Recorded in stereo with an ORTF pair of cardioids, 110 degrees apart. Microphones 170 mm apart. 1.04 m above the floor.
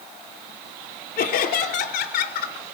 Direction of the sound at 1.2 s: 65° left.